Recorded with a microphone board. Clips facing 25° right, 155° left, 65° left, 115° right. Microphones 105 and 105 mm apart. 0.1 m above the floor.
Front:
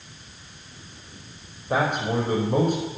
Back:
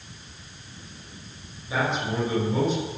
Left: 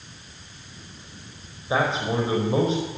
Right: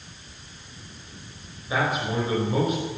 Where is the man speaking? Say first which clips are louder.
Front 3 dB, left 2 dB; 5° left, 5 m.